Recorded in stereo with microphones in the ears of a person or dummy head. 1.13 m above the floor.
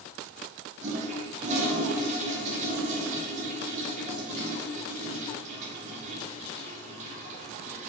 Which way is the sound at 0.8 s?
40° right (ahead or behind).